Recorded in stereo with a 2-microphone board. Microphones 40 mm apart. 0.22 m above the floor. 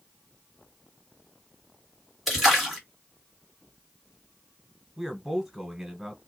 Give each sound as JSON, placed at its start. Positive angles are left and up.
{"t": 2.3, "sound": "a splash", "side_deg": -5, "distance_m": 1.8}
{"t": 5.0, "sound": "a man speaking", "side_deg": -5, "distance_m": 1.2}